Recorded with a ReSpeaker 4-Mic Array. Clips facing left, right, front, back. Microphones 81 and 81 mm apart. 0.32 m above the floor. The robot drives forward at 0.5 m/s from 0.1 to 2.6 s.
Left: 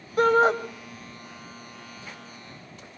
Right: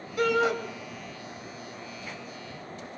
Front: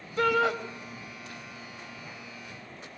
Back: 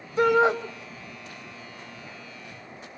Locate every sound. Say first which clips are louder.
0.2 s a shout: left 5 dB, back 5 dB; 115° left, 1.7 m; by 0.6 s 125° left, 1.8 m